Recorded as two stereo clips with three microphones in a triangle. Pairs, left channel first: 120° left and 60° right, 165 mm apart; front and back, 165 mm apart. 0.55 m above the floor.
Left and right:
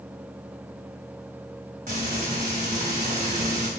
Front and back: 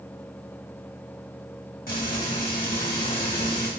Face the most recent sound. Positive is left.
turn(degrees=-25)